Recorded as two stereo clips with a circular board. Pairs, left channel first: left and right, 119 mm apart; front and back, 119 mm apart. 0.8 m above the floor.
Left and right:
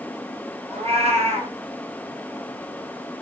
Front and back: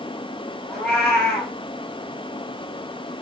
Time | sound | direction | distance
0.7 | a cat meowing | 85° right | 1.5 m